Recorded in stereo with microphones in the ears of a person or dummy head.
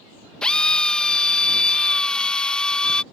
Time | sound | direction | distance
0.4 | a drill | 5° left (ahead or behind) | ?